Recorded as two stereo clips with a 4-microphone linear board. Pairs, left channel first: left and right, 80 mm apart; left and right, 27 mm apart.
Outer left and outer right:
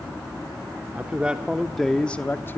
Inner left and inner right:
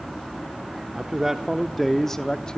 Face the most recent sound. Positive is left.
turn(degrees=30)  # may be behind; listen again after turning